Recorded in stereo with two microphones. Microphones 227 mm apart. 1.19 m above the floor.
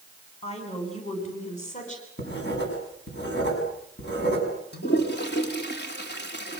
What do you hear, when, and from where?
0.4 s a woman speaking: 25° left (ahead or behind), 8.5 m; by 2.1 s 35° left (ahead or behind), 8.5 m
2.2 s writing: 50° left (ahead or behind), 7 m
4.7 s a toilet flushing: 50° left (ahead or behind), 3 m